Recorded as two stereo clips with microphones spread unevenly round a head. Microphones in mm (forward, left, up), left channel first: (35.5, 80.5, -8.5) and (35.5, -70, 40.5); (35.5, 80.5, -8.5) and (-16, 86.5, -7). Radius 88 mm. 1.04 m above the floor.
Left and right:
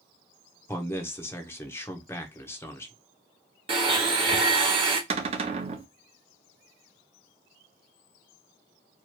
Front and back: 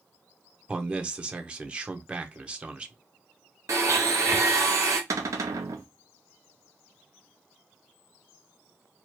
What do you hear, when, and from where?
0.7 s a man speaking: 115° left, 0.8 m
3.7 s a blender: 150° right, 0.9 m
5.1 s a cupboard door: 150° right, 0.5 m